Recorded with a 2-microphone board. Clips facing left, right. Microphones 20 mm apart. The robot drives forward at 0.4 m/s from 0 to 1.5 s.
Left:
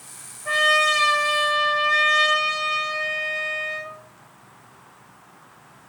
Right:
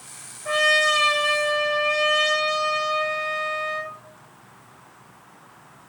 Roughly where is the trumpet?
Centre.